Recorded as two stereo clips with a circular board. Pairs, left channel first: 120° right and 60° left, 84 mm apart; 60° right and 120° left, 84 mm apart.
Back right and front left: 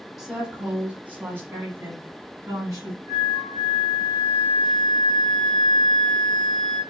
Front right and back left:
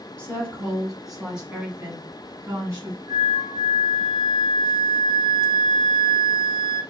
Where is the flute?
90° left, 2 m.